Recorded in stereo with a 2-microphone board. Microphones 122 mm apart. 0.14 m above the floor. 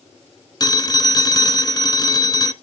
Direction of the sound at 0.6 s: 30° left (ahead or behind).